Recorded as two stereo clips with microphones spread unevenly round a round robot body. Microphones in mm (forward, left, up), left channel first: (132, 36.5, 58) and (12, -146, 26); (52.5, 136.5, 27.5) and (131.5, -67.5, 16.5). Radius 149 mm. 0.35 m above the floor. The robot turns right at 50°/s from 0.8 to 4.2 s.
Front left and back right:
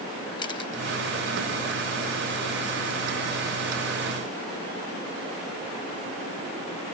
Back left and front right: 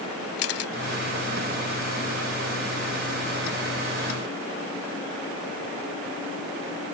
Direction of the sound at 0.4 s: 130° left.